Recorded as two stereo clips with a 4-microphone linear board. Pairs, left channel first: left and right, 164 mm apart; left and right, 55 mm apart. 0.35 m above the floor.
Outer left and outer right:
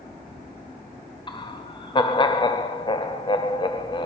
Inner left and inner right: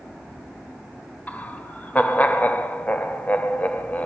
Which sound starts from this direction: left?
Laughter, at 1.3 s.